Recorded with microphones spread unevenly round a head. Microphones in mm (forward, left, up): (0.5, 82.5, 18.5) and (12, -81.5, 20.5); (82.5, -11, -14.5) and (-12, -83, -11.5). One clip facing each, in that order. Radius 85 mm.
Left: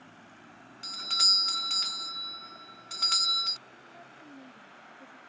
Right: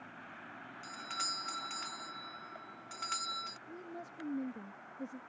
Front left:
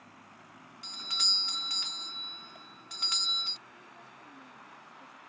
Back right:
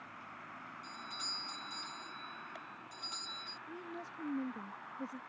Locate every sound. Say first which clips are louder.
0.8 s a doorbell: left 4 dB, front left 6 dB; 55° left
3.7 s a woman speaking: right 6 dB, back right 7 dB; 120° right